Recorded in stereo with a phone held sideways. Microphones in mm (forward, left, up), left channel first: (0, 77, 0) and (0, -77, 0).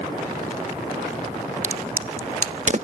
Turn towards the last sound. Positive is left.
turn(degrees=-50)  # may be behind; listen again after turning